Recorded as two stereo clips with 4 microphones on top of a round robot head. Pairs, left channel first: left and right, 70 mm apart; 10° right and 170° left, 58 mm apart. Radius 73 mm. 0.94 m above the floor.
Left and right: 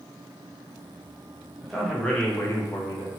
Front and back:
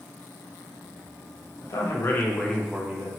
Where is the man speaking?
Straight ahead, 1.0 m; by 3.1 s 120° left, 0.9 m.